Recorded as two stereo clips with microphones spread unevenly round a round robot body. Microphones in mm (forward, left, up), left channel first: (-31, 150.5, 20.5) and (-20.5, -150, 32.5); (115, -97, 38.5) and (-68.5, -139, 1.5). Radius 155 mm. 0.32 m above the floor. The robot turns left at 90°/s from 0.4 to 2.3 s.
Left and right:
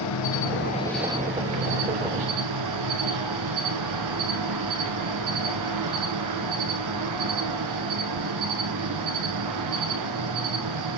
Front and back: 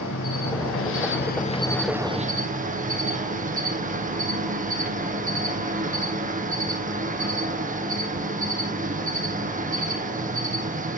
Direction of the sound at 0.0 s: 55° left.